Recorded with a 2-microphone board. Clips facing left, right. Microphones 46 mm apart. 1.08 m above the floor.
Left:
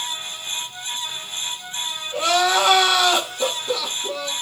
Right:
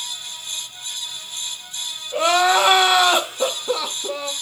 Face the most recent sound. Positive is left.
turn(degrees=-25)  # may be behind; listen again after turning